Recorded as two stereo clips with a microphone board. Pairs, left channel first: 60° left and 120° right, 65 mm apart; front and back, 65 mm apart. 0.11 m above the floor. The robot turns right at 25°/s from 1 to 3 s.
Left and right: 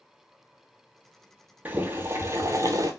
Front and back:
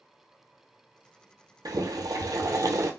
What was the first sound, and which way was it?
Boiling, 175° left.